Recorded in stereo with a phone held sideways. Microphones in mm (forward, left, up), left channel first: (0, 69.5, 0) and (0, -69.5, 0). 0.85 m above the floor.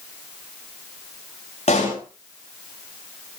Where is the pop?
55° left (ahead or behind), 9 m.